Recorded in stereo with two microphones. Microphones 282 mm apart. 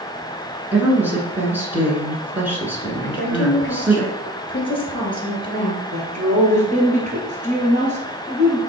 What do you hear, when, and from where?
0.7 s a woman speaking: 5° right (ahead or behind), 1.3 m
3.0 s a woman speaking: 20° left (ahead or behind), 1.4 m
5.9 s a woman speaking: 25° right (ahead or behind), 1.7 m